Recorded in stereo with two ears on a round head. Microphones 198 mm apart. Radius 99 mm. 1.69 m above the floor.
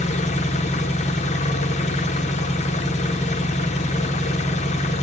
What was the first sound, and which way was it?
An engine running, 30° left (ahead or behind).